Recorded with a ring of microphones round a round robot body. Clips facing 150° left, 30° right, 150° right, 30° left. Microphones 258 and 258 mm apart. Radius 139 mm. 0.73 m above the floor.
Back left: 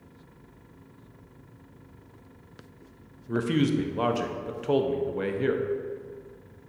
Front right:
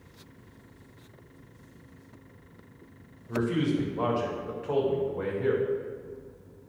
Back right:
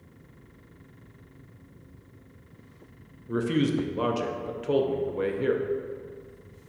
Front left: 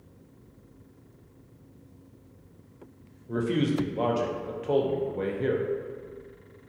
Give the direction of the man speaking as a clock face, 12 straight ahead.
7 o'clock.